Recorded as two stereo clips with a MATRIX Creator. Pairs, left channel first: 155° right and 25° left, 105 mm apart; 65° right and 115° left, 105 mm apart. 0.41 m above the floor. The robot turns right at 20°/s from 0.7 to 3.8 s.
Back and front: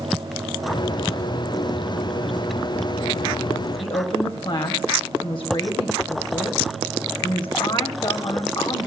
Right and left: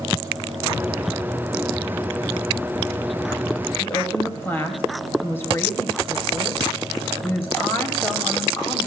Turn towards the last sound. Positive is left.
turn(degrees=-135)